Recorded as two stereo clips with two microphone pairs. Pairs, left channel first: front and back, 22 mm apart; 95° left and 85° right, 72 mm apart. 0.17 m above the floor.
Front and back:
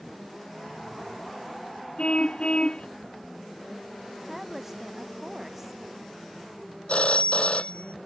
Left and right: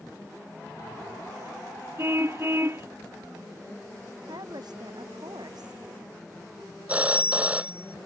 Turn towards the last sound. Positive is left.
turn(degrees=-15)